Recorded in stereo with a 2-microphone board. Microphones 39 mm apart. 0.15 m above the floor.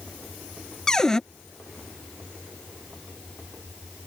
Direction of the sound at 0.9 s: 15° left (ahead or behind).